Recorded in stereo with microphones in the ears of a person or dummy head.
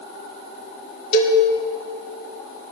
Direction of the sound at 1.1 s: 45° left (ahead or behind).